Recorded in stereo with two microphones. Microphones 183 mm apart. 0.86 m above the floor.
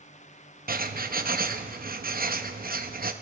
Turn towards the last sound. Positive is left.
turn(degrees=-60)  # may be behind; listen again after turning